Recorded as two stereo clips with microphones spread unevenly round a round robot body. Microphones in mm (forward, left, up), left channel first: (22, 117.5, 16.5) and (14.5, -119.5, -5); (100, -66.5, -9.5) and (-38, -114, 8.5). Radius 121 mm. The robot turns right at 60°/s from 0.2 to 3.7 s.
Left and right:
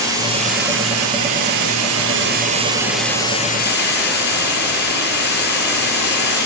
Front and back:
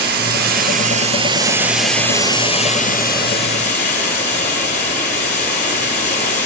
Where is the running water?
170° right, 7.5 m; by 6.5 s 40° left, 7.5 m.